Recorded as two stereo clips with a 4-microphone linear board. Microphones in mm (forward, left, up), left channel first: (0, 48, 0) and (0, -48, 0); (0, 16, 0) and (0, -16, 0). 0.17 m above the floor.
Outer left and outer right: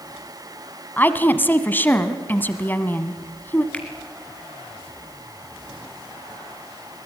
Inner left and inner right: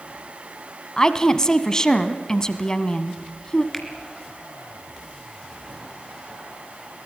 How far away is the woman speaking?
About 1.1 m.